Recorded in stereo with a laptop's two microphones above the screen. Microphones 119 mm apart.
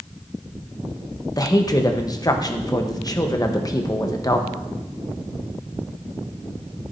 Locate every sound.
1.4 s a woman speaking: 30° left (ahead or behind), 0.9 m